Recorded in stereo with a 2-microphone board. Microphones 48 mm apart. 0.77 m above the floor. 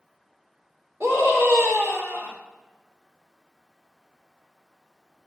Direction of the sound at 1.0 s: 70° right (ahead or behind).